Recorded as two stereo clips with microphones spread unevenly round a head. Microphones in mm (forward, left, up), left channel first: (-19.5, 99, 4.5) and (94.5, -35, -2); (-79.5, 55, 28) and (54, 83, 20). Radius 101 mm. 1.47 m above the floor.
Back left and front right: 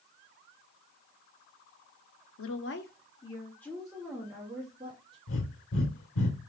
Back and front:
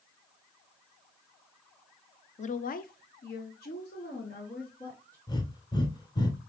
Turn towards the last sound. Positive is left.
turn(degrees=130)